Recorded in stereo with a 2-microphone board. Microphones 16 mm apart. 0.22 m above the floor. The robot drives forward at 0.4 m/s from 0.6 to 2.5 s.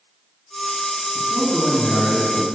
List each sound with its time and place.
1.1 s a man speaking: 55° left (ahead or behind), 3 m; by 2.5 s 50° left (ahead or behind), 3.5 m